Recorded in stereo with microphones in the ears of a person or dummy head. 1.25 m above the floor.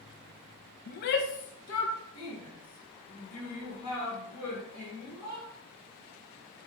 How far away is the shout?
About 0.6 m.